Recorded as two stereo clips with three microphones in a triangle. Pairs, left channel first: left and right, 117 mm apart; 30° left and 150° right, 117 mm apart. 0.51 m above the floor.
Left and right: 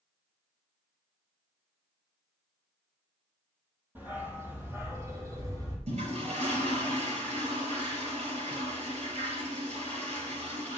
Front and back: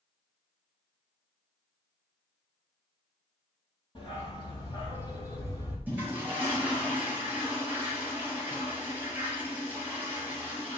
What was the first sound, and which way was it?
A dog barking, 15° right.